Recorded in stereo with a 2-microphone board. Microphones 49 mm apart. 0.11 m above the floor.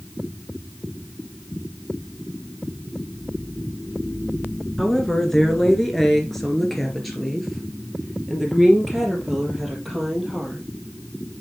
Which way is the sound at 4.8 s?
10° left (ahead or behind).